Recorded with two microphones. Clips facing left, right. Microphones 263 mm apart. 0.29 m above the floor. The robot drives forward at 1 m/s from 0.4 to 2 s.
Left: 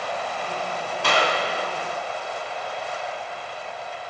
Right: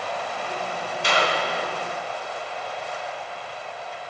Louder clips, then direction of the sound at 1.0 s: Left 1 dB; 65° left (ahead or behind).